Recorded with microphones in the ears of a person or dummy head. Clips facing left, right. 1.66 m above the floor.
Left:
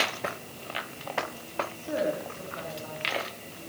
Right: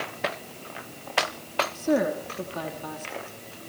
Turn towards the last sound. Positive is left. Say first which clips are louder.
# right 6 dB
turn(degrees=-80)